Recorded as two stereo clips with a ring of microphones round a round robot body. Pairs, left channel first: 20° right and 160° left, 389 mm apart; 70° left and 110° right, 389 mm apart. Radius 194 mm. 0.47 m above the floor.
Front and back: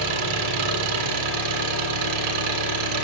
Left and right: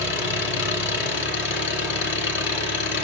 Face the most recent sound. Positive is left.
turn(degrees=130)